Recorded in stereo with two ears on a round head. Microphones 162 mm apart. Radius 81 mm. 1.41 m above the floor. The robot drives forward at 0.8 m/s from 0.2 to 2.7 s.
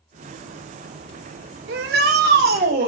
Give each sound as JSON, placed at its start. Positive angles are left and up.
{"t": 1.7, "sound": "a shout", "side_deg": -70, "distance_m": 2.5}